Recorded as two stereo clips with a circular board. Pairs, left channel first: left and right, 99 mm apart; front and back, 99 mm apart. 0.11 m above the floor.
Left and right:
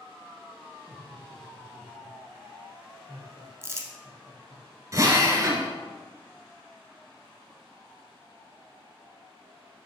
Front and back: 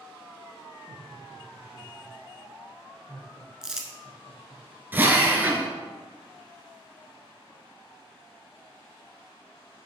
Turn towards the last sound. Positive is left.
turn(degrees=-120)